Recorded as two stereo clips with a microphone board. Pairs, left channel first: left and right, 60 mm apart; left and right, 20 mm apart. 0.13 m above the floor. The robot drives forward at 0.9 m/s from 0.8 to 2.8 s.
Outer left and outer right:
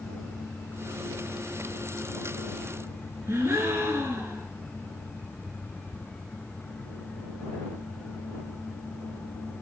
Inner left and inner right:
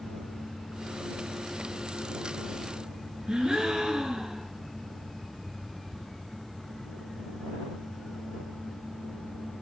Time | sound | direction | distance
3.3 | a gasp | 50° right (ahead or behind) | 0.5 m